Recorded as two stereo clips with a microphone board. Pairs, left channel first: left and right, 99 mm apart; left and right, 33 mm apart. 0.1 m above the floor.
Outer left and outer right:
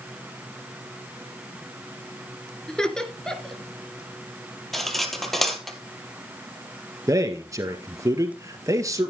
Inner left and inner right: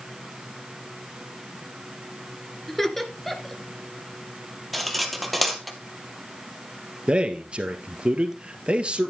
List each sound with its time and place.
2.7 s laughter: 5° left (ahead or behind), 1.5 m
4.7 s cutlery clinking: centre (ahead or behind), 1.9 m
7.1 s a man speaking: 35° right (ahead or behind), 1.7 m